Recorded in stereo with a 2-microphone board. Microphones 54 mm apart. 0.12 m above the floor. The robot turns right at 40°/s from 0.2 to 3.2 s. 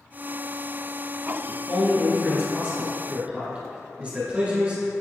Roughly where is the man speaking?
Centre.